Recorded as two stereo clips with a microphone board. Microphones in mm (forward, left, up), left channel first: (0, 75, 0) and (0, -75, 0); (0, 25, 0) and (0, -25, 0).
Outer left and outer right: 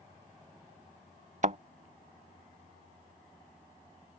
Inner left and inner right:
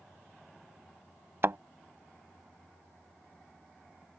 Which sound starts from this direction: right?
A thud, at 1.4 s.